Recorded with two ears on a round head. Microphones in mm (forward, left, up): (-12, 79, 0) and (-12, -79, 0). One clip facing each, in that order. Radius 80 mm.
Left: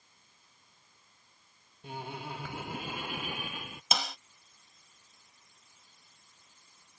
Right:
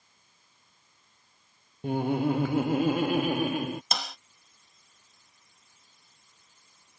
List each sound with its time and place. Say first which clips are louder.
1.8 s laughter: right 15 dB; 45° right (ahead or behind)
3.9 s a snare drum: even; 5° left (ahead or behind)